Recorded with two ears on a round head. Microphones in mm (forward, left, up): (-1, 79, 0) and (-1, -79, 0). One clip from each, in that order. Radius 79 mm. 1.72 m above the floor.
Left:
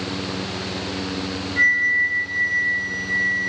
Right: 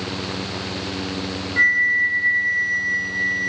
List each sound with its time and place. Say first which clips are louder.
1.6 s a flute: right 1 dB; 20° right (ahead or behind), 3 m